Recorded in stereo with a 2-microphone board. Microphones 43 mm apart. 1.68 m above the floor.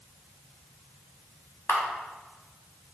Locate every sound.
1.7 s a camera shutter: 70° left (ahead or behind), 0.7 m